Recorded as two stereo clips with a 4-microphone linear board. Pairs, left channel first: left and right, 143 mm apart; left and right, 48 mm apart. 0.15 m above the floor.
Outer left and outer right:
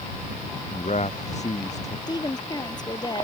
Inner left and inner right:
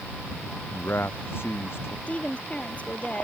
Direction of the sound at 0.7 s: 55° left (ahead or behind).